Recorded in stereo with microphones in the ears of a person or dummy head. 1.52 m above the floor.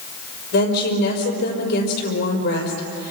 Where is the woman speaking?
70° left (ahead or behind), 5 m.